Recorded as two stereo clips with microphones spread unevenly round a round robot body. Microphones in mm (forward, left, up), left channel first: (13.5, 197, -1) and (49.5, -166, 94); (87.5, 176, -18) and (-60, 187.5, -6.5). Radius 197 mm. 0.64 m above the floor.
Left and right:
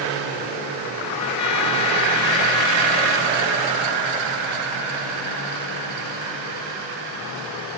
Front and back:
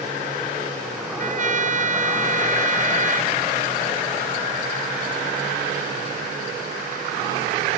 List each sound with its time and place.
1.2 s a trumpet: 145° left